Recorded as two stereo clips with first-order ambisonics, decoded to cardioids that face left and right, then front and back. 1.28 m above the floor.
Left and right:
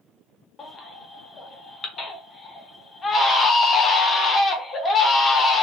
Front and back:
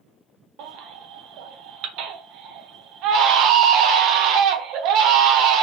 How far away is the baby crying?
About 0.6 m.